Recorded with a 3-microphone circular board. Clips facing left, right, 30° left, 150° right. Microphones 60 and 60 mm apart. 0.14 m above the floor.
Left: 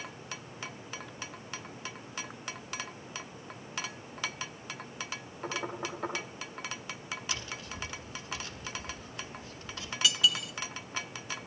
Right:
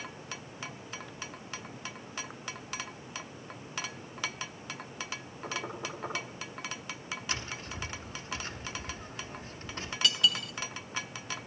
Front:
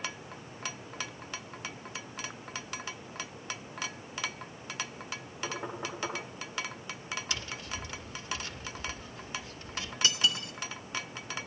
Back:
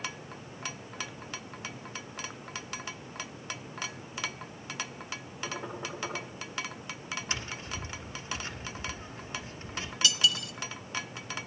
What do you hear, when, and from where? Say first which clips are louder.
5.4 s knocking: left 2 dB, front 1 dB; 100° left, 7 m
7.3 s tapping: right 1 dB, back 1 dB; 110° right, 1.2 m
10.0 s cutlery clinking: left 1 dB, back 2 dB; 5° left, 0.9 m